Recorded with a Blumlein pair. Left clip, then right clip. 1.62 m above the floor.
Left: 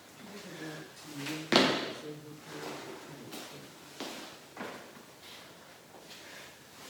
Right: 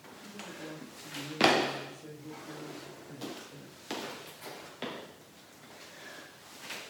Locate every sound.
0.2 s a woman speaking: 5° left, 9 m; by 3.8 s 15° right, 6.5 m